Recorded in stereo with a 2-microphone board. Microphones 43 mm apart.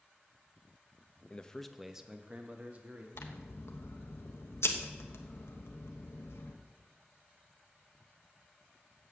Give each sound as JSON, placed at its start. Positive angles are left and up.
{"t": 1.3, "sound": "a man speaking", "side_deg": 25, "distance_m": 0.7}
{"t": 3.1, "sound": "scissors", "side_deg": 85, "distance_m": 1.1}